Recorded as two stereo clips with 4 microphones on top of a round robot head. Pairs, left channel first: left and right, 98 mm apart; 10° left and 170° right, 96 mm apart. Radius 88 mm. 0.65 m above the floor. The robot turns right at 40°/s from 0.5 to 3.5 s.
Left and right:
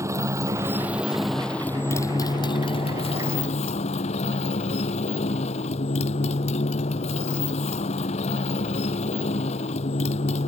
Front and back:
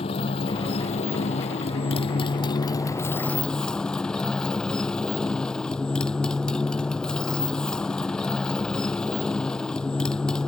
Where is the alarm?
No alarm in this recording.